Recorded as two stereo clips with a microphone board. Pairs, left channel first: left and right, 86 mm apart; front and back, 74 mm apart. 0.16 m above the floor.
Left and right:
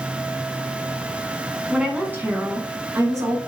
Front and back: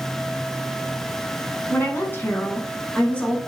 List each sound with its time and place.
1.7 s a woman speaking: 15° right, 1.1 m; by 3.4 s 70° right, 1.5 m